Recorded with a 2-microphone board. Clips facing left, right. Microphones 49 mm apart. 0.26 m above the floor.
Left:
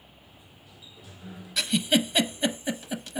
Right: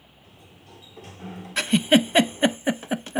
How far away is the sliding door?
About 1.7 m.